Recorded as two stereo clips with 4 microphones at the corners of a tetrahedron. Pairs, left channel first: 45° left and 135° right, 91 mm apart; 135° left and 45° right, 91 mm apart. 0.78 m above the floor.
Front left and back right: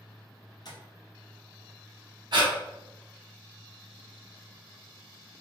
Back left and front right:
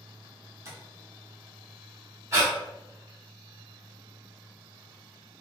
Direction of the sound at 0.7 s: 10° left.